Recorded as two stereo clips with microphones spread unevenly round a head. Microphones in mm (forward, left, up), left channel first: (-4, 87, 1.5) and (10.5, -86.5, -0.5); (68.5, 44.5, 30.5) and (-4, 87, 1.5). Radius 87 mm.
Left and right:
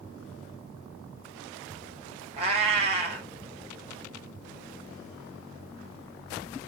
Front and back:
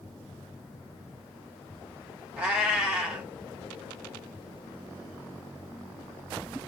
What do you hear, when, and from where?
2.4 s a cat meowing: 105° right, 1.1 m